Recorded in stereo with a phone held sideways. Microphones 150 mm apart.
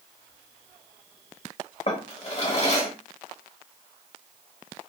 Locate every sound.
1.9 s a drawer: 45° left (ahead or behind), 0.9 m